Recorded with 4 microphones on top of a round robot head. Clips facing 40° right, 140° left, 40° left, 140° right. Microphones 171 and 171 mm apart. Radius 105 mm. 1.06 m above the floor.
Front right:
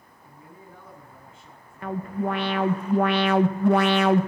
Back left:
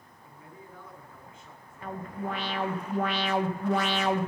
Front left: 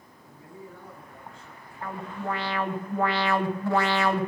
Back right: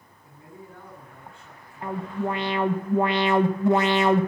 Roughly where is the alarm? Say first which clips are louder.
Front right 7 dB, back right 5 dB; right.